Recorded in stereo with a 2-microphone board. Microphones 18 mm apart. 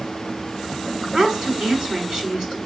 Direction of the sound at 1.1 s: 35° right (ahead or behind).